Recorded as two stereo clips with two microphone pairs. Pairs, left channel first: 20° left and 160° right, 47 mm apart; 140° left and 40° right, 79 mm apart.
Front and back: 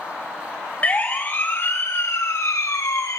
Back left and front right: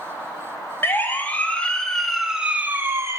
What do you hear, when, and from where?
0.8 s a siren: 75° left, 2.5 m; by 3.2 s 15° left, 1.7 m